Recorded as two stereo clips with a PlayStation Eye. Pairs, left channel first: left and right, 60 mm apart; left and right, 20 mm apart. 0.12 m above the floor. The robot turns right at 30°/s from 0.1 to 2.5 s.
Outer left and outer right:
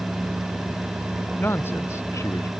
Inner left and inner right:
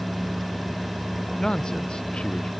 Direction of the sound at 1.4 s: 35° left.